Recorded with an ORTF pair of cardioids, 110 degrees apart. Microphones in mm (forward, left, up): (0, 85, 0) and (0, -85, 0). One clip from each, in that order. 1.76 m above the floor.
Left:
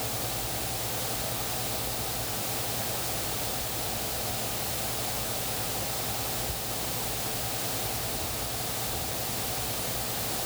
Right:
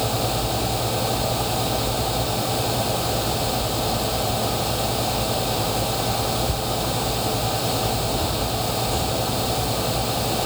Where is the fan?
65° right.